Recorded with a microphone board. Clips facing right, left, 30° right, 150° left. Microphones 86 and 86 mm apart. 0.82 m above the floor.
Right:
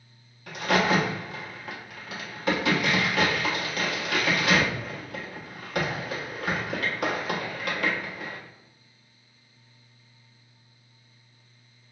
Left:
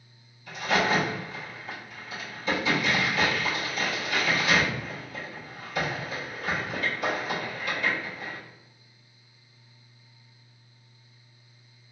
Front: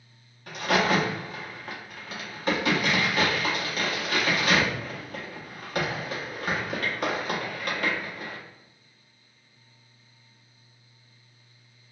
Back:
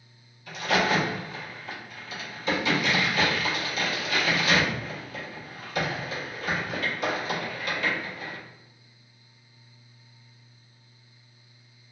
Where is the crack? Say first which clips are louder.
Right 2 dB, front 1 dB; 65° right, 0.9 m.